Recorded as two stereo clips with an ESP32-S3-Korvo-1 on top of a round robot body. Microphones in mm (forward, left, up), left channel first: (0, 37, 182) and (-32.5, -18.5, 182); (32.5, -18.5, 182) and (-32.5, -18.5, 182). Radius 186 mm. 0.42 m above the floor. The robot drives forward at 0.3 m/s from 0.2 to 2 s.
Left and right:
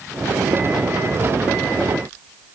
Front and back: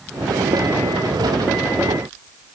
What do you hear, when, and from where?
Only background noise.